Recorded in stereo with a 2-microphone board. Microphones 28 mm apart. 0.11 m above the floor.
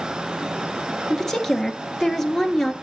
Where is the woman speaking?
10° left (ahead or behind), 1.4 m.